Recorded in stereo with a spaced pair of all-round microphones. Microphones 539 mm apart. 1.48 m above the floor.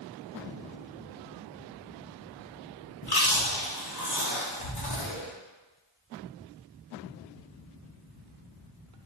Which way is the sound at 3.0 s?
45° left (ahead or behind).